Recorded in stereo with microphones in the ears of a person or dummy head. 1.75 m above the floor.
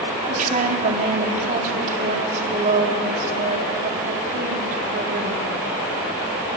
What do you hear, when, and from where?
0.3 s a woman speaking: 40° right (ahead or behind), 4 m